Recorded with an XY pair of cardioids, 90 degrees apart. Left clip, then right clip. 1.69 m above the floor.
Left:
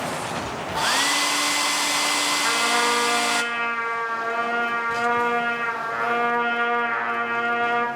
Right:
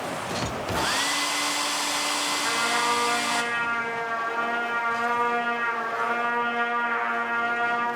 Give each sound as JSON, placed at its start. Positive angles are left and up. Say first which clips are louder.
{"t": 0.8, "sound": "a hair dryer", "louder": "left 4 dB", "azimuth_deg": 40, "distance_m": 1.0}
{"t": 2.4, "sound": "a trumpet", "louder": "left 2 dB", "azimuth_deg": 50, "distance_m": 5.0}